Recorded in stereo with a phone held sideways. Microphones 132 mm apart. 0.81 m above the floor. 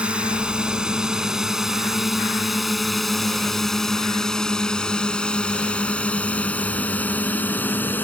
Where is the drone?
10° right (ahead or behind); by 8.0 s 15° left (ahead or behind).